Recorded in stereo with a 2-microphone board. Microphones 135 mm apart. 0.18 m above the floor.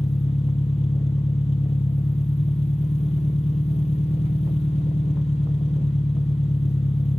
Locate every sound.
0.0 s an engine running: 50° left (ahead or behind), 0.9 m